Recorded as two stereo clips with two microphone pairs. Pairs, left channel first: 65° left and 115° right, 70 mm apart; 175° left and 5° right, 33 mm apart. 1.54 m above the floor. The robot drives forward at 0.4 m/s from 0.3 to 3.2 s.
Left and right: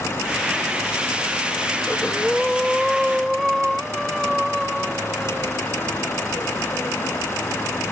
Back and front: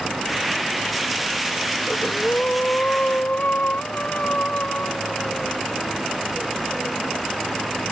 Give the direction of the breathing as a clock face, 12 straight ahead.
7 o'clock.